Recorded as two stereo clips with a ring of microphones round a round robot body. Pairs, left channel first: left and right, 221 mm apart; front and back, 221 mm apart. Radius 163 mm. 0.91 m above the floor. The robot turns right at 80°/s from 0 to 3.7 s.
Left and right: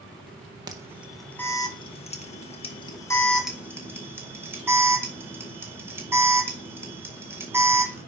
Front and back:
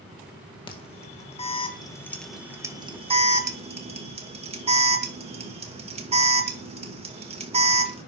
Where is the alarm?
40° right, 1.7 m; by 8.0 s 160° right, 1.7 m.